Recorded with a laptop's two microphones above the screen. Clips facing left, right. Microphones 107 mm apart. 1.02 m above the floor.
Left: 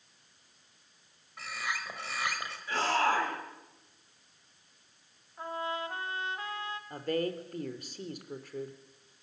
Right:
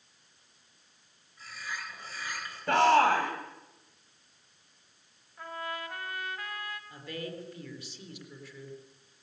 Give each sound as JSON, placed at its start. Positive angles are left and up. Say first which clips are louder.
{"t": 1.4, "sound": "a bird", "louder": "left 4 dB", "side_deg": 85, "distance_m": 5.0}
{"t": 2.7, "sound": "a shout", "louder": "right 7 dB", "side_deg": -65, "distance_m": 6.5}
{"t": 5.4, "sound": "a trumpet", "louder": "left 3 dB", "side_deg": 25, "distance_m": 2.0}
{"t": 6.9, "sound": "a woman speaking", "louder": "left 11 dB", "side_deg": 45, "distance_m": 4.0}